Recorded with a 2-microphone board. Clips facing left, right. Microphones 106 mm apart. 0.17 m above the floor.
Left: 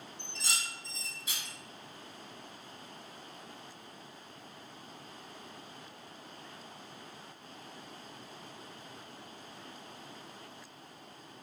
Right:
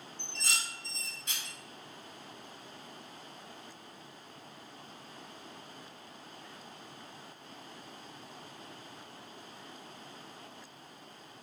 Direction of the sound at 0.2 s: 5° left (ahead or behind).